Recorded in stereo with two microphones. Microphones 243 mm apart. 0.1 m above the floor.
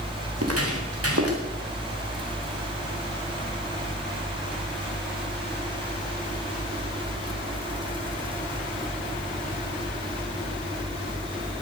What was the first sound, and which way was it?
Footsteps, 90° right.